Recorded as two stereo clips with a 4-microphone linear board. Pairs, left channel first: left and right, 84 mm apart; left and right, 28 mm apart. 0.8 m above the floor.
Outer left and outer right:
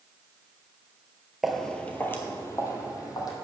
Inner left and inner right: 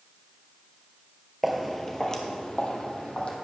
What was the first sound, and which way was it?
Footsteps, centre (ahead or behind).